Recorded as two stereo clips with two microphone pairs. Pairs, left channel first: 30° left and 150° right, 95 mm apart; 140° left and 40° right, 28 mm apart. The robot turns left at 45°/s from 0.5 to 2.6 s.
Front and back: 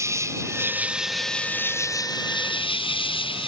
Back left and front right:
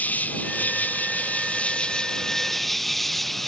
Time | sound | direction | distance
0.0 | an insect | 150° left | ?